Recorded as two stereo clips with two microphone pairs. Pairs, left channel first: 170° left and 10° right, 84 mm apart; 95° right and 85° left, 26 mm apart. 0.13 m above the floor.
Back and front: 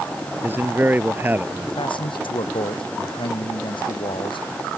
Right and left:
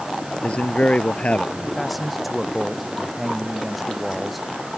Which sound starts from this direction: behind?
A man speaking, at 1.8 s.